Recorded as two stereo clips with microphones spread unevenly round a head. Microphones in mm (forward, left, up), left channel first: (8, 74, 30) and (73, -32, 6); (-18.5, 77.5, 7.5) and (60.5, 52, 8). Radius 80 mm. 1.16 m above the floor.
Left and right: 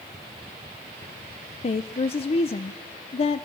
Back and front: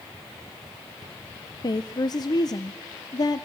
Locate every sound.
1.6 s a woman speaking: 165° left, 0.6 m